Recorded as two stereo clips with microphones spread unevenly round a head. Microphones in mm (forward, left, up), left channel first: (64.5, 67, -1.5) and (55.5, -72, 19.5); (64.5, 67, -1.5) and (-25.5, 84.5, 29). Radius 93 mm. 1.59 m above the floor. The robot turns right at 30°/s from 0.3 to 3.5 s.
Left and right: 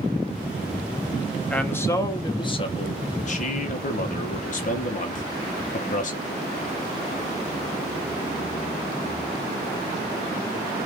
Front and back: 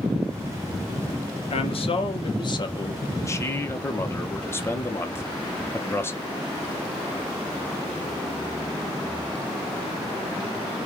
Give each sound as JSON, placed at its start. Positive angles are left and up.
{"t": 1.5, "sound": "a man speaking", "azimuth_deg": 0, "distance_m": 1.0}